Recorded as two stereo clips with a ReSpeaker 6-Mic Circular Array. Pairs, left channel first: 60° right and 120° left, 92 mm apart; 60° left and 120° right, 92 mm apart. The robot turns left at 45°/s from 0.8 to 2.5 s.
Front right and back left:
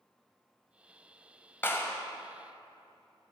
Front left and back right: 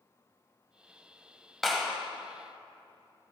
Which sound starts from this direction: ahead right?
A clap, at 1.6 s.